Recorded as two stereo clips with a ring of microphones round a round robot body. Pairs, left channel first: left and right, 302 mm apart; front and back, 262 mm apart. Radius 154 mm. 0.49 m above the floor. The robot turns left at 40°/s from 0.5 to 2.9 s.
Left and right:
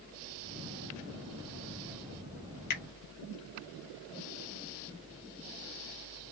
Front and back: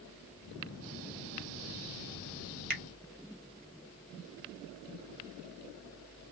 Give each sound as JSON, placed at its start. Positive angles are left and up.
{"t": 2.7, "sound": "a finger snap", "azimuth_deg": 140, "distance_m": 1.5}